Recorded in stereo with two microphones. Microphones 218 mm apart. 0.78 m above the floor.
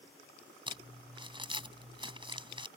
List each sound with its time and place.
0.7 s crumpling: 20° right (ahead or behind)